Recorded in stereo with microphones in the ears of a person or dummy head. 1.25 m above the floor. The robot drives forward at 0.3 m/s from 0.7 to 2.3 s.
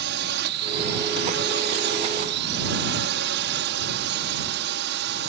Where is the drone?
60° right (ahead or behind).